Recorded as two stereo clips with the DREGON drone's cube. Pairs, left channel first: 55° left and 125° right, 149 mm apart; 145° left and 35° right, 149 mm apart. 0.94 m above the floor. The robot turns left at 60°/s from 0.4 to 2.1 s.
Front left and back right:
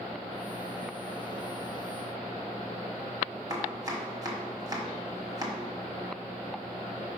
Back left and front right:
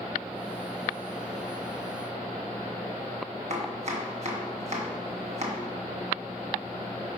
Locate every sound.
3.5 s chopping: 65° right, 1.3 m